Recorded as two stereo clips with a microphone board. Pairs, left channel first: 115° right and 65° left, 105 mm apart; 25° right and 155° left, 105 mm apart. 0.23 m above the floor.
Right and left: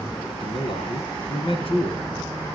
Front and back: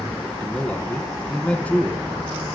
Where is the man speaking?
100° right, 2.5 m.